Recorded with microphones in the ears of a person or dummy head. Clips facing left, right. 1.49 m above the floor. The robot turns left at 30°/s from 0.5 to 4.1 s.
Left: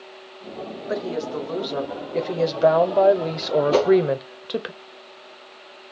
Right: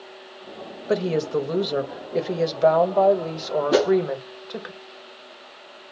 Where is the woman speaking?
135° right, 0.8 m; by 4.7 s 130° left, 0.8 m.